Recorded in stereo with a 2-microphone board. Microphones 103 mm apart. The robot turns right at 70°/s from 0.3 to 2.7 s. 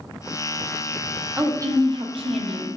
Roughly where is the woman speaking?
Behind.